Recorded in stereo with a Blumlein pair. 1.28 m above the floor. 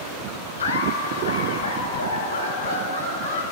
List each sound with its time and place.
0.6 s laughter: 70° left, 0.9 m